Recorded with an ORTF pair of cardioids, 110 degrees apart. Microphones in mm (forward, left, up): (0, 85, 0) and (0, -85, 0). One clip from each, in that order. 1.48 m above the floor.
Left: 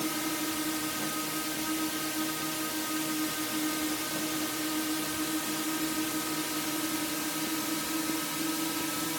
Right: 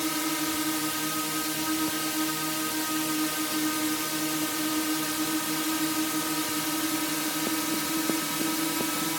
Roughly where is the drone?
Ahead right.